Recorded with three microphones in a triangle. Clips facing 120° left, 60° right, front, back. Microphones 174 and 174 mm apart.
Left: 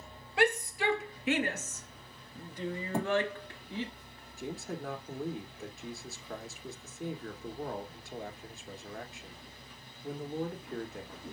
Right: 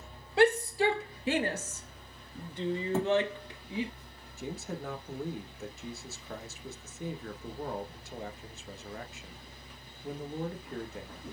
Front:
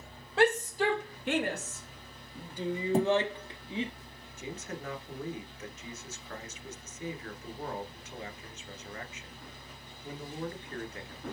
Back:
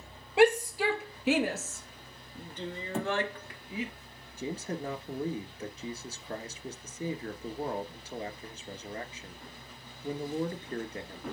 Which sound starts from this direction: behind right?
A man speaking, at 4.4 s.